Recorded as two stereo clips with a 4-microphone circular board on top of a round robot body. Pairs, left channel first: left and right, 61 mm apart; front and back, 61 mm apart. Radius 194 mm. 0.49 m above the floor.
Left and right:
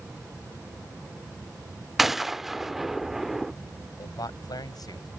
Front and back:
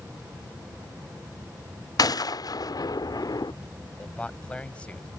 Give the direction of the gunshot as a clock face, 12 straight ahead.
12 o'clock.